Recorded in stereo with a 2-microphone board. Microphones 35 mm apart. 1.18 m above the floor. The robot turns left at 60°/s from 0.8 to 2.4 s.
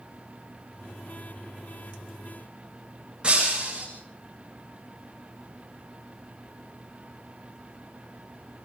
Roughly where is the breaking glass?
Right.